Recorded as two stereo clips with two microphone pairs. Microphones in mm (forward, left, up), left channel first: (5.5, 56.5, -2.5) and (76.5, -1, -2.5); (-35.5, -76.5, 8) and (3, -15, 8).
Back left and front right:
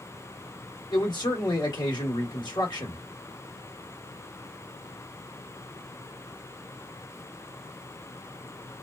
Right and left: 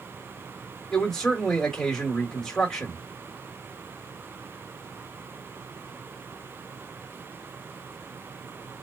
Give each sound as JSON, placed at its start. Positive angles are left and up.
{"t": 0.9, "sound": "a man speaking", "azimuth_deg": 155, "distance_m": 1.2}